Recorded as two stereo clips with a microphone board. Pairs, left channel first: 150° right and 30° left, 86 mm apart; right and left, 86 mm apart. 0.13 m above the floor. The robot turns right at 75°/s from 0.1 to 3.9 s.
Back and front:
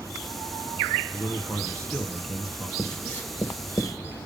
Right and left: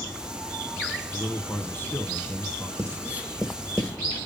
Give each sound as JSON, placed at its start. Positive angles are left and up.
{"t": 1.1, "sound": "a man speaking", "azimuth_deg": -165, "distance_m": 1.5}
{"t": 2.8, "sound": "writing", "azimuth_deg": 120, "distance_m": 1.6}